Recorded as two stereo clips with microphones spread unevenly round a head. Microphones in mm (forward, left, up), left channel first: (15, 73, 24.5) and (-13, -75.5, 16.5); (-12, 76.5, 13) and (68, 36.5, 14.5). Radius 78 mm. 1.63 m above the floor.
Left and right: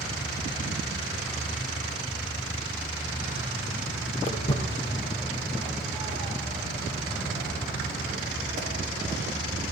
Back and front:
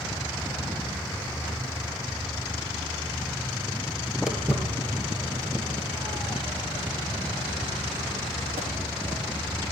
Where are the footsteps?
55° left, 2 m; by 9.7 s 45° right, 5.5 m.